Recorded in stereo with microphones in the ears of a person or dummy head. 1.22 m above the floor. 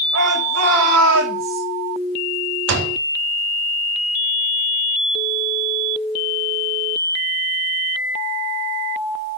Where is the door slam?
75° right (ahead or behind), 3 m.